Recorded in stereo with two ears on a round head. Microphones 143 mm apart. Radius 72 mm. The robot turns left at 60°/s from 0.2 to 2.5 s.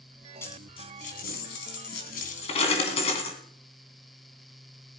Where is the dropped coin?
15° left (ahead or behind), 3 m; by 3.4 s 40° left (ahead or behind), 3 m.